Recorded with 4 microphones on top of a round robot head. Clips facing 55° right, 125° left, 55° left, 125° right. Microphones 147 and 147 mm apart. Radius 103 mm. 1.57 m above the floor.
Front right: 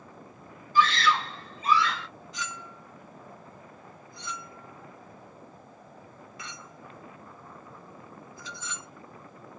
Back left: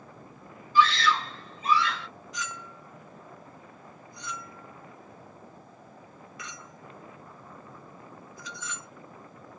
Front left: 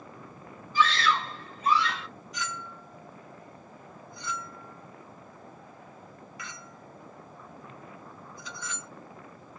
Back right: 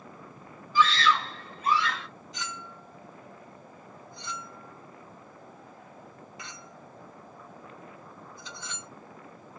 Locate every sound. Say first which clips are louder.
0.8 s a scream: back left 1 dB, back right 1 dB; 105° right, 1.3 m; by 2.1 s 70° right, 1.5 m
2.3 s a clink: even, front left 3 dB; 85° right, 0.6 m